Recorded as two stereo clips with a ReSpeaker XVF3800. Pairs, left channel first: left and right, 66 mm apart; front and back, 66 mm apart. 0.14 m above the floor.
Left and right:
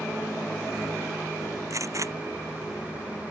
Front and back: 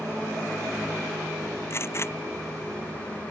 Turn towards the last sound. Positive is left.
turn(degrees=-50)